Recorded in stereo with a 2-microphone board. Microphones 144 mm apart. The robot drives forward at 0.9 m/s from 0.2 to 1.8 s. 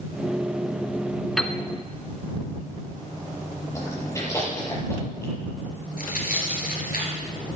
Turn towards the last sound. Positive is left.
turn(degrees=75)  # may be behind; listen again after turning